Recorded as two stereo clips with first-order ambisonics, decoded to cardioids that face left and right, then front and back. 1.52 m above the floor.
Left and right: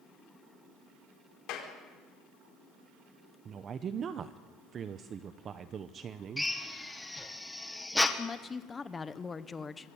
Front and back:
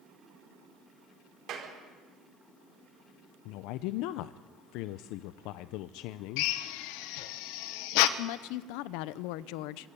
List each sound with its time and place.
1.5 s a clap: 125° left, 4.5 m
3.5 s a woman speaking: 25° right, 0.7 m
6.4 s a drill: 5° left, 1.4 m
8.2 s a woman speaking: 15° left, 0.8 m